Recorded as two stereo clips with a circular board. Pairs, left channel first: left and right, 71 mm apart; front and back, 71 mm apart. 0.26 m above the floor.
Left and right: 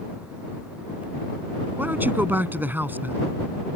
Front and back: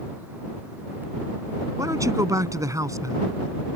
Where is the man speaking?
150° right.